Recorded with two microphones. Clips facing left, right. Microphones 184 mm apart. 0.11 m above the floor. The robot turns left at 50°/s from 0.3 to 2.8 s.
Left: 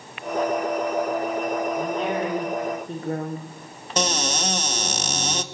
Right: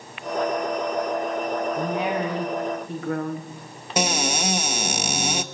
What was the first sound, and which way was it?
A woman speaking, 160° right.